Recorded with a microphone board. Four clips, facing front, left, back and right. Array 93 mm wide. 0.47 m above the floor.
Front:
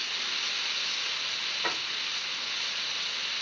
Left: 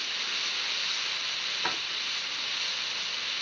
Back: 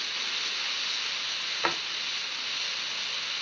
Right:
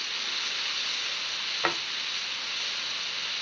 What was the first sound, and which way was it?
A drawer, 125° right.